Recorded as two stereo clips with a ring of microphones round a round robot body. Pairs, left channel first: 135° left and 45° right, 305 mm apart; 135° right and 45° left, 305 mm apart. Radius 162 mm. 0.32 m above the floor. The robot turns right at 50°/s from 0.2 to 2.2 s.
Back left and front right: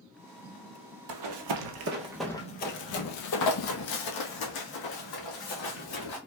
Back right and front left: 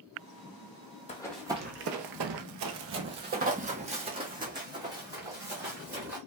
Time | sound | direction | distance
1.1 | running footsteps | 65° right | 0.8 m